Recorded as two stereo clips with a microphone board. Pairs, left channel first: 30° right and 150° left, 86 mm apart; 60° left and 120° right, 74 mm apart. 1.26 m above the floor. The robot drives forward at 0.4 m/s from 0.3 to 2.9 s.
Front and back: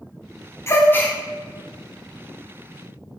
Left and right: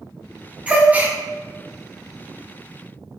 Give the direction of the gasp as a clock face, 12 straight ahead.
2 o'clock.